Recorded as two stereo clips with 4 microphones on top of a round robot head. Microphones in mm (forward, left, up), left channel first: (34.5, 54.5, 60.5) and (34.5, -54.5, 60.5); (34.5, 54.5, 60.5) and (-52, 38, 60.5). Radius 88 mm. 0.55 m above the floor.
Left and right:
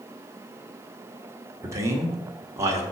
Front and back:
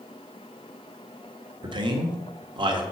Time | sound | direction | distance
1.6 | a man speaking | 150° right | 1.7 m